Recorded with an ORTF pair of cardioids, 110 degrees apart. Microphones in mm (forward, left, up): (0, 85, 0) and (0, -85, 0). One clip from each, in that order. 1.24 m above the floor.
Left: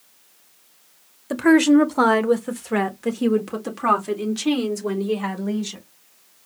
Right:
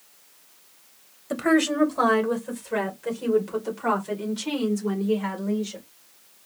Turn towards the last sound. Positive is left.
turn(degrees=65)